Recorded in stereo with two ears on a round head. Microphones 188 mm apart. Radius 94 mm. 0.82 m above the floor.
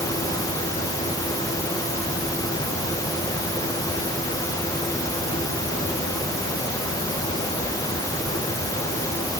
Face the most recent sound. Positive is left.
No sound to turn to.